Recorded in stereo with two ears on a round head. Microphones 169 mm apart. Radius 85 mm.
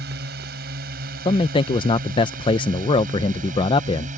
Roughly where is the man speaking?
Left.